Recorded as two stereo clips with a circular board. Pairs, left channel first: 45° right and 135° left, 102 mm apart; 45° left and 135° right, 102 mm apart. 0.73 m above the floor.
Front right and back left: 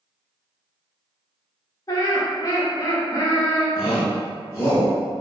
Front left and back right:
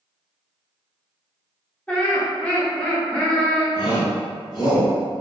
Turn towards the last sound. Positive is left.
turn(degrees=10)